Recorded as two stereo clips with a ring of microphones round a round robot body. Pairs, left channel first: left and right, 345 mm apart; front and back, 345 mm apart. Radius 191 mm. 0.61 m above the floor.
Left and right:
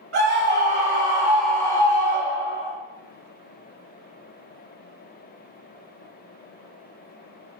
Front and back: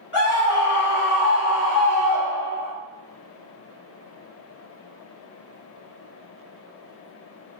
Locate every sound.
0.1 s a scream: 50° right, 1.2 m; by 2.7 s 50° left, 1.2 m